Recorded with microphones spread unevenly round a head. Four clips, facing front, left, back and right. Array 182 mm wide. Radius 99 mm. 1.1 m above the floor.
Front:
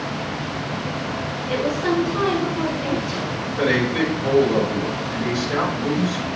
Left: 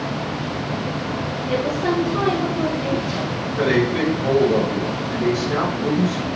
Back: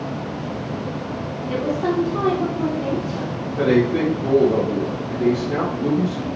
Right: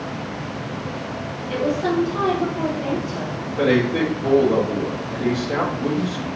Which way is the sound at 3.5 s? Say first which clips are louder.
Right 1 dB, back 3 dB; 155° right.